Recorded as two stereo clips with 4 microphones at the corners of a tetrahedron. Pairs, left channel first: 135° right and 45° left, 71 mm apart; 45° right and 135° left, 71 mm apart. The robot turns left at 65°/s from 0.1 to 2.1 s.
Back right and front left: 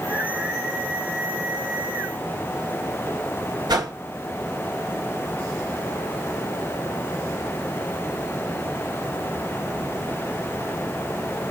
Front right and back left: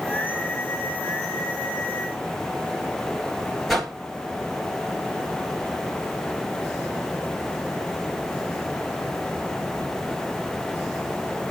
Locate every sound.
3.7 s a whoosh: 40° left, 2.5 m